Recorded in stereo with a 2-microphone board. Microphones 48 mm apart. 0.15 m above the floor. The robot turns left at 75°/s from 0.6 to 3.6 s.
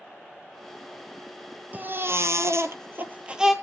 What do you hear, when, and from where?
1.7 s a baby crying: 35° right, 1.3 m; by 3.5 s 170° right, 1.3 m